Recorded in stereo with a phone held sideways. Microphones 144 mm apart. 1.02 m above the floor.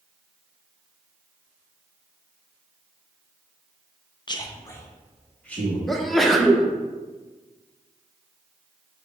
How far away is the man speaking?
About 0.6 m.